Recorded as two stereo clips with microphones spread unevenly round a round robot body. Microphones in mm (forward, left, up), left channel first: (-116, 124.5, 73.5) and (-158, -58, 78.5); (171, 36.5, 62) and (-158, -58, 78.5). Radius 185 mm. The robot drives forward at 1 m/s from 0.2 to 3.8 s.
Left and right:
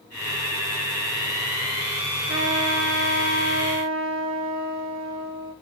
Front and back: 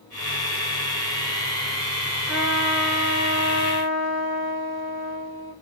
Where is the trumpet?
80° right, 5 m; by 5.5 s 100° right, 5 m.